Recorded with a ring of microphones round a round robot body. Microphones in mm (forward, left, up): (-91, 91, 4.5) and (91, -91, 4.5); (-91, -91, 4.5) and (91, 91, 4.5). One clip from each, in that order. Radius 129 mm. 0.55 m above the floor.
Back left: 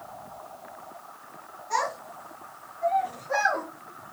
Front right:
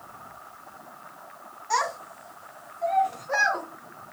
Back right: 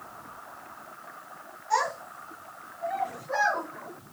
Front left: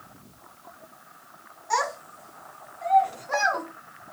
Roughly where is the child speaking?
Ahead.